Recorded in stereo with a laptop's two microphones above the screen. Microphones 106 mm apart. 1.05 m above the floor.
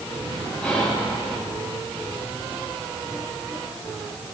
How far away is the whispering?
About 6.5 m.